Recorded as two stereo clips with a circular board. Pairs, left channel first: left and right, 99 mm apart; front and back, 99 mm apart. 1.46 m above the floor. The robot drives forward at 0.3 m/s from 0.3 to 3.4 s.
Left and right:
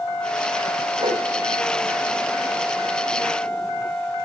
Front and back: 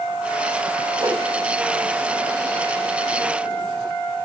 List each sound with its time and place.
1.0 s a whoosh: 125° right, 1.5 m; by 1.2 s 130° right, 1.6 m